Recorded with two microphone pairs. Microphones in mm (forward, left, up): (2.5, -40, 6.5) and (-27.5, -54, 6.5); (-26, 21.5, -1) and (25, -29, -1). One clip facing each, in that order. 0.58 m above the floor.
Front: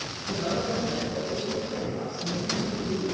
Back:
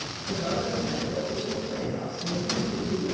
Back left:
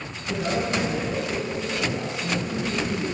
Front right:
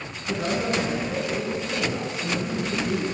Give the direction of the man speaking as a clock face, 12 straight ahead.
1 o'clock.